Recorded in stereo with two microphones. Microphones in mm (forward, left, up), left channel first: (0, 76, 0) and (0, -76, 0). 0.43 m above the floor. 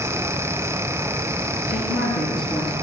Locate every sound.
1.7 s a woman speaking: 5° left (ahead or behind), 8.5 m